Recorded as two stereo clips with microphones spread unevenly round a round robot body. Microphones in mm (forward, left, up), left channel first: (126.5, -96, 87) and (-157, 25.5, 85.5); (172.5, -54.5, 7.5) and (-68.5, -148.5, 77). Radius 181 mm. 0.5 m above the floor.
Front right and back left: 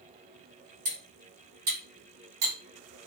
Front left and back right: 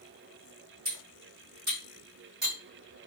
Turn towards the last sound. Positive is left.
turn(degrees=145)